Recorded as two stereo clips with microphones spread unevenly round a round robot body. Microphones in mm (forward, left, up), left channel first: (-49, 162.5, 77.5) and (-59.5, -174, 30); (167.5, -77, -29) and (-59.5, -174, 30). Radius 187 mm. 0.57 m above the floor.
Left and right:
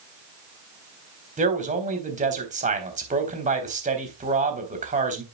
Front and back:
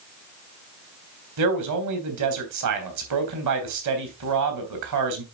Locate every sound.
1.4 s a man speaking: 160° right, 3.5 m